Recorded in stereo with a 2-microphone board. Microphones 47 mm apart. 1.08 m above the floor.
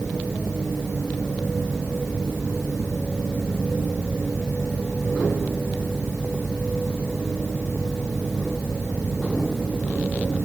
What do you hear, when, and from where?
Only background noise.